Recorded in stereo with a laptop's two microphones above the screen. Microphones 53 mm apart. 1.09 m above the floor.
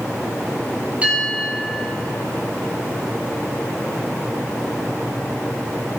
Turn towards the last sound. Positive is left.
turn(degrees=-25)  # may be behind; listen again after turning